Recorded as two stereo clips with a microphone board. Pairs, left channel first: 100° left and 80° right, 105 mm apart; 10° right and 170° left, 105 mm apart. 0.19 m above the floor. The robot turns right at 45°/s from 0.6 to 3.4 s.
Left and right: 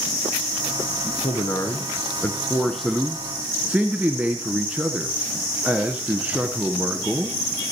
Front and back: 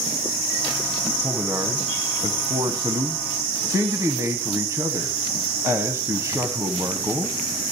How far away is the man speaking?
About 1.3 m.